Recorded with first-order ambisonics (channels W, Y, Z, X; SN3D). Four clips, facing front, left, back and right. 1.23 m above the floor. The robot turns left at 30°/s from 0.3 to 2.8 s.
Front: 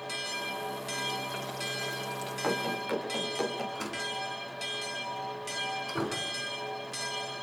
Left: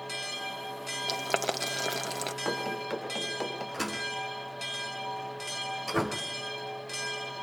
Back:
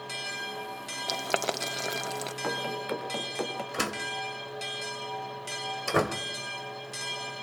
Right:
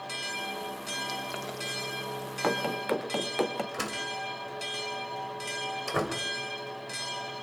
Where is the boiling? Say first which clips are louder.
Left 5 dB, back 5 dB; 150° left, 1.2 m; by 2.3 s 115° left, 1.2 m.